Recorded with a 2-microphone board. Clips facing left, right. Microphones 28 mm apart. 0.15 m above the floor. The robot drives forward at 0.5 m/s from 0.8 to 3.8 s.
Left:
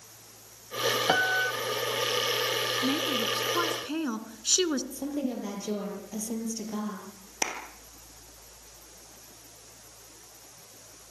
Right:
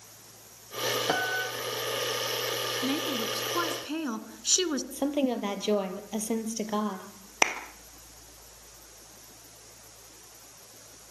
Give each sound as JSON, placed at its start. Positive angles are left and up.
{"t": 1.1, "sound": "a piano", "side_deg": 25, "distance_m": 0.7}
{"t": 2.8, "sound": "a woman speaking", "side_deg": 0, "distance_m": 1.3}
{"t": 4.9, "sound": "a woman speaking", "side_deg": -55, "distance_m": 3.5}
{"t": 7.4, "sound": "a clap", "side_deg": -40, "distance_m": 2.5}